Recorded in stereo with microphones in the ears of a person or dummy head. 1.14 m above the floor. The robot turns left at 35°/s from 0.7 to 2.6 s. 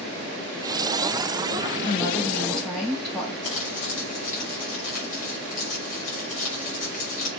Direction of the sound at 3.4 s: 35° left (ahead or behind).